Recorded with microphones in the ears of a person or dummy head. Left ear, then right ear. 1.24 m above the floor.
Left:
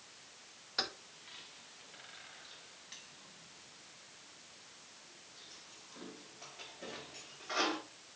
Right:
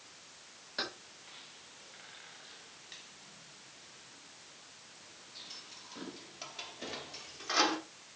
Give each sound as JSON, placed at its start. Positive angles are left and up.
{"t": 0.8, "sound": "keys jangling", "side_deg": 10, "distance_m": 3.5}